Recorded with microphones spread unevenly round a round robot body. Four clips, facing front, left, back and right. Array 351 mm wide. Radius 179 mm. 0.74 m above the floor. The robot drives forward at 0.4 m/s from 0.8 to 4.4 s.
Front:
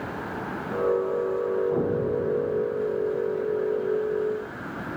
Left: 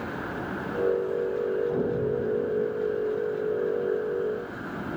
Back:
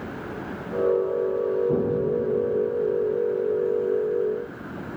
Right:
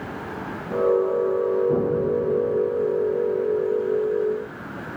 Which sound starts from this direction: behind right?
An explosion, at 1.7 s.